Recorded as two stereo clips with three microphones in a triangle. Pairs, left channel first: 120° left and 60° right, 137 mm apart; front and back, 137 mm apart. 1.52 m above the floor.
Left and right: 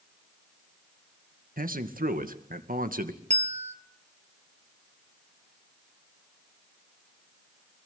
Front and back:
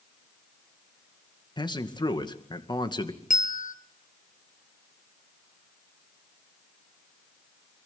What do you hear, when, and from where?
1.6 s a man speaking: 60° right, 2.0 m
3.3 s a bell: 25° right, 1.6 m